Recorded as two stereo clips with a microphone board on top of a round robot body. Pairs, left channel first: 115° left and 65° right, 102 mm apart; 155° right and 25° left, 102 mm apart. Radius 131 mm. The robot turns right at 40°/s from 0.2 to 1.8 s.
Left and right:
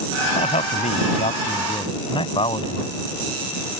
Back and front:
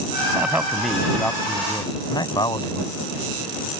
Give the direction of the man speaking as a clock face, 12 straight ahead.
9 o'clock.